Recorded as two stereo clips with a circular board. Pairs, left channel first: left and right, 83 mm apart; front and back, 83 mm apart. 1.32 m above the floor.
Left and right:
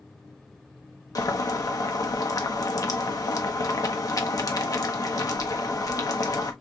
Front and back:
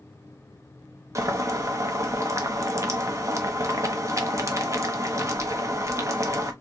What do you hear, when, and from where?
1.1 s boiling: 130° left, 0.9 m